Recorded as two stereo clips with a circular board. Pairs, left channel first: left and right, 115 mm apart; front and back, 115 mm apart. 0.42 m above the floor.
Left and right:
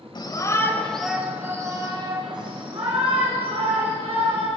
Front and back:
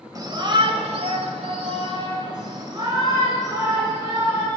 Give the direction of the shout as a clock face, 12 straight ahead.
8 o'clock.